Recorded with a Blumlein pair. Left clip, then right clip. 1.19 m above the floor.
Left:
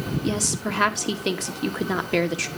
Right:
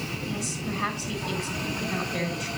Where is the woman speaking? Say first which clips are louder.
Left 6 dB; 50° left, 1.8 m.